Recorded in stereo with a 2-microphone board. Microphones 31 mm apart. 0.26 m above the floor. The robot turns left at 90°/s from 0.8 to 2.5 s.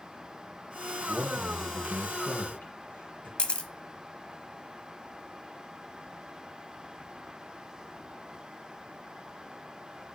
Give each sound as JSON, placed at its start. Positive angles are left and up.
{"t": 1.1, "sound": "a man speaking", "azimuth_deg": -140, "distance_m": 4.5}
{"t": 3.4, "sound": "a camera shutter", "side_deg": 30, "distance_m": 1.0}